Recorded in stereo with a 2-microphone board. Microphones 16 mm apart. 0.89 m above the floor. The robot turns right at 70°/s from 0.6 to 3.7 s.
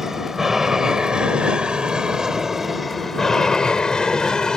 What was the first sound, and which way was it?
An aircraft, 25° right (ahead or behind).